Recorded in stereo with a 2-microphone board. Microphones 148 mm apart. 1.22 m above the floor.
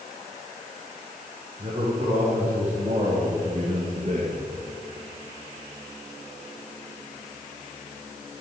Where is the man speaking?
45° right (ahead or behind), 3.5 m; by 4.4 s 55° right (ahead or behind), 1.3 m.